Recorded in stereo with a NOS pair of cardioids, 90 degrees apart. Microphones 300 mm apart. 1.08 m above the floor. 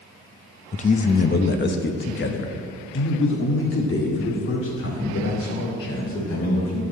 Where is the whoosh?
I don't hear a whoosh.